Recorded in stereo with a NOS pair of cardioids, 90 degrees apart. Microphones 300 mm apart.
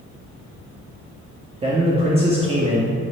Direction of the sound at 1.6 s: 20° right.